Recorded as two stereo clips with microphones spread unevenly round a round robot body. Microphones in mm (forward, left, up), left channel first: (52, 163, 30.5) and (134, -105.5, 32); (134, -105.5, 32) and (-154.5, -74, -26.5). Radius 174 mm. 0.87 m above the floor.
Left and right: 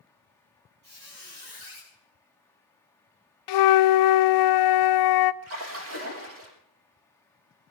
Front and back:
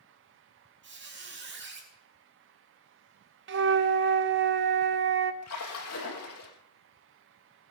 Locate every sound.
0.8 s a squeak: 135° right, 5 m
3.5 s a flute: 115° left, 0.5 m
5.4 s a splash: 35° right, 4.5 m